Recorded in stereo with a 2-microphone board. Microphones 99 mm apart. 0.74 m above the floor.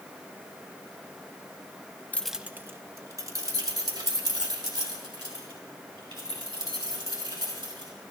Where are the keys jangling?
15° left (ahead or behind), 0.5 m; by 7.9 s 50° right (ahead or behind), 8 m.